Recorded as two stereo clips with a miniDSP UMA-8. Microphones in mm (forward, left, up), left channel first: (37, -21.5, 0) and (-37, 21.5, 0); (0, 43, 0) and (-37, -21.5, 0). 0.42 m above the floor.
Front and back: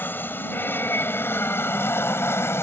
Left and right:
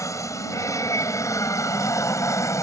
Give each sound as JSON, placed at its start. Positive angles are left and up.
{"t": 0.0, "sound": "an aircraft", "azimuth_deg": 30}